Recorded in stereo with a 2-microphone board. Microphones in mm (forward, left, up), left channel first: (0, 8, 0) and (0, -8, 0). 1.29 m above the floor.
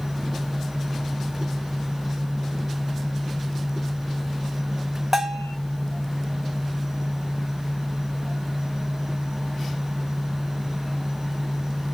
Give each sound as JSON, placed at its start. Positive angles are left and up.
{"t": 5.1, "sound": "a bell", "side_deg": -25, "distance_m": 1.4}